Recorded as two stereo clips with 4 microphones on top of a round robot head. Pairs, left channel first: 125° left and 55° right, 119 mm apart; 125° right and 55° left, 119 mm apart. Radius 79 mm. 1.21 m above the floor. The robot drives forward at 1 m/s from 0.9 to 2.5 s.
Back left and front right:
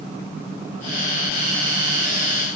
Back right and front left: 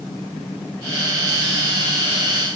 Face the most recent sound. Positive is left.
No sound to turn to.